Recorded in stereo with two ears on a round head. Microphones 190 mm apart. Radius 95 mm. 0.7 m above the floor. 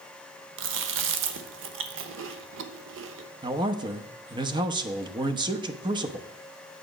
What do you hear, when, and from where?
0.6 s chewing: 65° right (ahead or behind), 1.0 m
3.4 s a man speaking: 20° right (ahead or behind), 0.8 m